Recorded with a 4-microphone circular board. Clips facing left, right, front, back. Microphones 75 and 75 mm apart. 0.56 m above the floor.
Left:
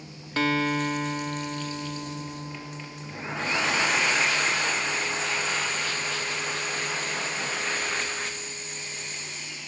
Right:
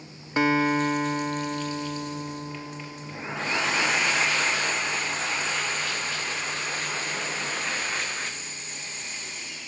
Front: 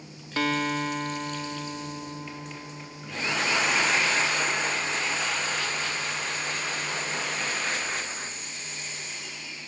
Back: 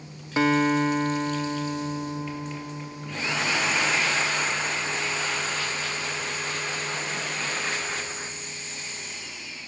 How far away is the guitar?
About 0.9 m.